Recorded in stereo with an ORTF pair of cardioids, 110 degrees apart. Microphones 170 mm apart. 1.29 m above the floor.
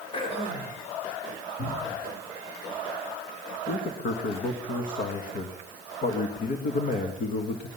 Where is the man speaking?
55° left, 1.9 m.